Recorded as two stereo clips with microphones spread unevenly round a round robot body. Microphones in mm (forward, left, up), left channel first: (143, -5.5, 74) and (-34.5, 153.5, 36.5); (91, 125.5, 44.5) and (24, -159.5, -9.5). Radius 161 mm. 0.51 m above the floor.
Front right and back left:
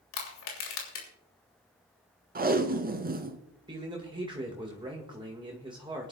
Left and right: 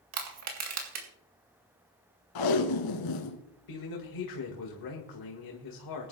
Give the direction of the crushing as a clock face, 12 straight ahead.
3 o'clock.